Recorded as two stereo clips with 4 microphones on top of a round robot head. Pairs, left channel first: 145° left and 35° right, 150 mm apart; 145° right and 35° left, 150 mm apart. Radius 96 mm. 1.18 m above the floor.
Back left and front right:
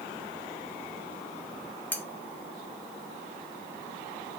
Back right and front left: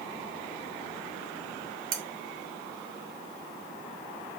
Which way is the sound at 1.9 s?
70° left.